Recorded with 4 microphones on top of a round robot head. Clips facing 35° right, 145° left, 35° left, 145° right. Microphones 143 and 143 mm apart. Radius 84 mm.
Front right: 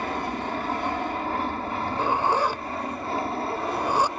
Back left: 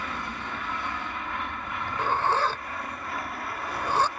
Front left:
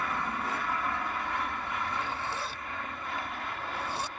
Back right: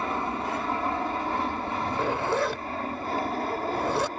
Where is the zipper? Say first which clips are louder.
Front right 2 dB, back right 10 dB; 110° right.